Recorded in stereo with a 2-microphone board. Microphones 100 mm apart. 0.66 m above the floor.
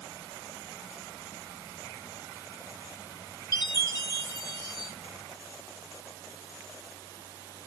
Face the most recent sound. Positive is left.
turn(degrees=45)  # may be behind; listen again after turning